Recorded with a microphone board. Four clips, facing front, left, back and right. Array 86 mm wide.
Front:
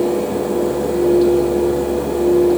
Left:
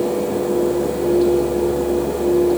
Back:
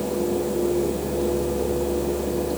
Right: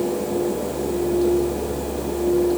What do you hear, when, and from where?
Only background noise.